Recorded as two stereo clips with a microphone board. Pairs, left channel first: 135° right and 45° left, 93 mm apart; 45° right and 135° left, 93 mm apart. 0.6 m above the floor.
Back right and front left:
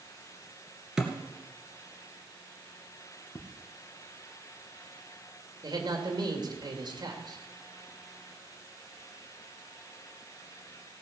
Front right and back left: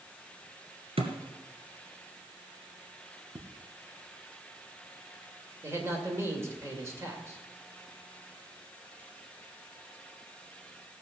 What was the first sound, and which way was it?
A thud, 130° left.